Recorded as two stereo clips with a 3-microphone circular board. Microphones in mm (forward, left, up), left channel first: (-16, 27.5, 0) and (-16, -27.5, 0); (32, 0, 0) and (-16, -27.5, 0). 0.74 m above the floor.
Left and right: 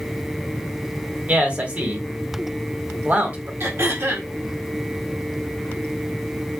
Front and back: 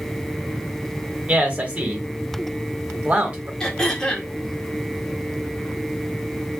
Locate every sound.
1.3 s a man speaking: 115° right, 1.2 m
3.6 s throat clearing: 50° right, 1.2 m